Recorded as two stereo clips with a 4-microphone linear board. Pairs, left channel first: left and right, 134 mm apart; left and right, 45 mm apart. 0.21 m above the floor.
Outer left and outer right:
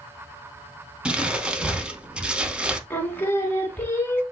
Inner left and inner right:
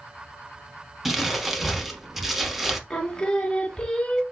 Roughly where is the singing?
Centre.